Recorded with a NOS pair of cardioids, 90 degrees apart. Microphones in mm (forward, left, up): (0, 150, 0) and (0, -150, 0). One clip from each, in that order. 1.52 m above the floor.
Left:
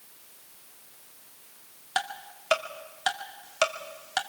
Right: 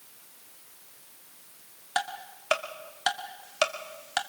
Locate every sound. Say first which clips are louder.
1.9 s ticking: even; 5° right, 2 m